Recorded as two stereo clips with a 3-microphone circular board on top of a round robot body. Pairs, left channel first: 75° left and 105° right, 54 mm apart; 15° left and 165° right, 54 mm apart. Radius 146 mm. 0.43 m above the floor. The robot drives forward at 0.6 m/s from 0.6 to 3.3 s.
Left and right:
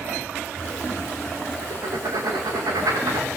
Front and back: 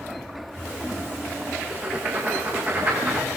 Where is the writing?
100° right, 9 m; by 3.3 s 110° right, 9.5 m.